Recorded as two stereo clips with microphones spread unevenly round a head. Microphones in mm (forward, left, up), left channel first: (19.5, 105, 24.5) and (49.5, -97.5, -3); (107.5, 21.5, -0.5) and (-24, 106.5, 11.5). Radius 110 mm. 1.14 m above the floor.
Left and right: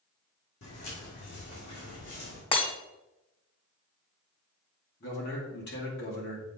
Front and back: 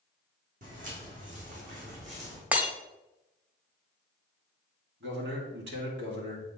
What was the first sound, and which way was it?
Footsteps, 120° left.